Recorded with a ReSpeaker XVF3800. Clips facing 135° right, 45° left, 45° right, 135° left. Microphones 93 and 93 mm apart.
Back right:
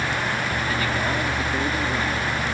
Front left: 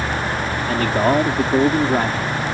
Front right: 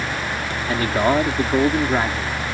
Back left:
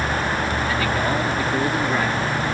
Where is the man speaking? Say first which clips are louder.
Front left 11 dB, front right 7 dB; 5° left; by 2.4 s 20° left.